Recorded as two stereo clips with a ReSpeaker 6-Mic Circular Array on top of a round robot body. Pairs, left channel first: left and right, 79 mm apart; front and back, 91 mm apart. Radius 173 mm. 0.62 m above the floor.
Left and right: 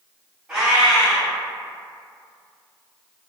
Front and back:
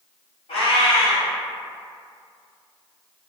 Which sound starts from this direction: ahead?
A cat meowing, at 0.5 s.